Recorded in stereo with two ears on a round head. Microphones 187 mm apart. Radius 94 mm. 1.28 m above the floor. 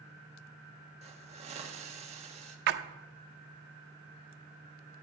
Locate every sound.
1.0 s a hiss: 30° right (ahead or behind), 1.5 m
2.7 s a splash: 55° right (ahead or behind), 0.8 m